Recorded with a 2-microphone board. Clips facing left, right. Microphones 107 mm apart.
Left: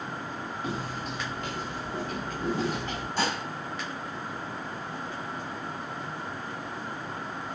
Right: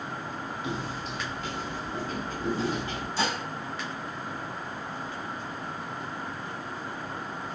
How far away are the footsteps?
About 1.1 m.